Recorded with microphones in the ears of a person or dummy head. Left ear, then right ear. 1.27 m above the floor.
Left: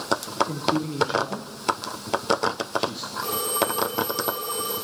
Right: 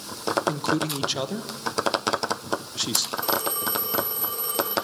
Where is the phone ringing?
5° right (ahead or behind), 4.5 m.